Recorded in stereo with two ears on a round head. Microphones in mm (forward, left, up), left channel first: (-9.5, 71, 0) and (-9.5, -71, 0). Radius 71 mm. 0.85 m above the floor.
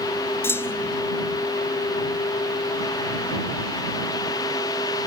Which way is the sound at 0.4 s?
15° left (ahead or behind).